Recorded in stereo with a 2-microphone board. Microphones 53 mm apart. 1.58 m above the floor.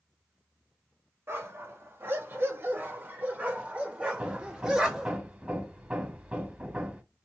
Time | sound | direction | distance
1.3 | a dog barking | 45° right (ahead or behind) | 1.9 m
4.2 | hammering | 25° right (ahead or behind) | 1.8 m